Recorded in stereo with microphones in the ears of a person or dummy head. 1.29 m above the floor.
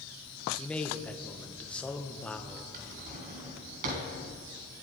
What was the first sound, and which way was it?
A man speaking, 5° left (ahead or behind).